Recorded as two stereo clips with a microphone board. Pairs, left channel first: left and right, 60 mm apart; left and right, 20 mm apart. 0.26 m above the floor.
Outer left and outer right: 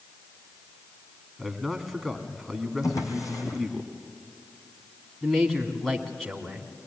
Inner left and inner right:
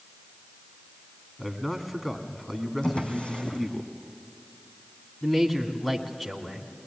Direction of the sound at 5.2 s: 5° left (ahead or behind).